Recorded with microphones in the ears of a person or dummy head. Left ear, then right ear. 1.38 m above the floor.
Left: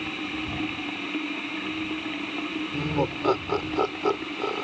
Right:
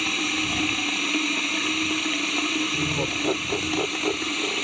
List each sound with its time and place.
0.0 s running water: 85° right
2.7 s laughter: 75° left (ahead or behind)